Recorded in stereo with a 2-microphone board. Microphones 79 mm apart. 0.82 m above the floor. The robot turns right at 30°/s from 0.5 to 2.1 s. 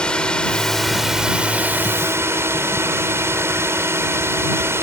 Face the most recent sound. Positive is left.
turn(degrees=-145)